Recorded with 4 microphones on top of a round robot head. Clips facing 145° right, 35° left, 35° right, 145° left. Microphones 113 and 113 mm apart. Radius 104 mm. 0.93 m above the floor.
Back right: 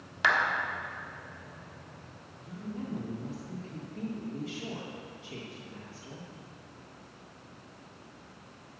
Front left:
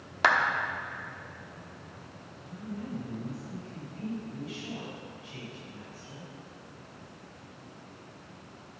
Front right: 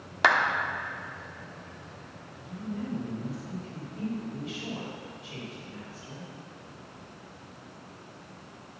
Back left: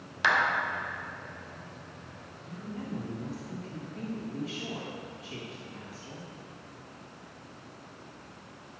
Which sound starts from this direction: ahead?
A clap, at 0.2 s.